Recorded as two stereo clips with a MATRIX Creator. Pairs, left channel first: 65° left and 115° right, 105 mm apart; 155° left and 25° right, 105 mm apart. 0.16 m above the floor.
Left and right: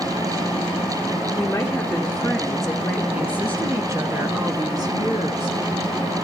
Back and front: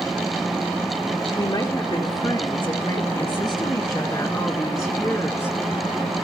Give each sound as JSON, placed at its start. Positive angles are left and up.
{"t": 1.4, "sound": "a woman speaking", "azimuth_deg": 135, "distance_m": 2.5}